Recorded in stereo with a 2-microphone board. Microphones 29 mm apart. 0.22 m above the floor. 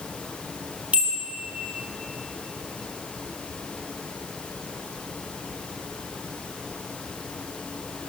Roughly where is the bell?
Right.